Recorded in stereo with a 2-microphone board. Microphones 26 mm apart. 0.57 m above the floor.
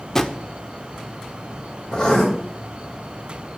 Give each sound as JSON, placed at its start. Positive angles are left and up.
{"t": 0.1, "sound": "a drawer", "side_deg": 20, "distance_m": 0.5}
{"t": 1.9, "sound": "writing", "side_deg": 30, "distance_m": 2.0}